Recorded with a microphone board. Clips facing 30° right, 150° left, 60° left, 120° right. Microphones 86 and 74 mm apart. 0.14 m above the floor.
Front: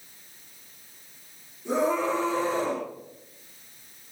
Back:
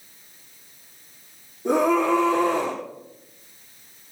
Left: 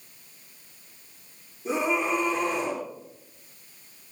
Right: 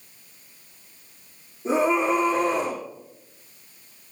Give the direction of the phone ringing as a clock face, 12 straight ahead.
I don't hear a phone ringing.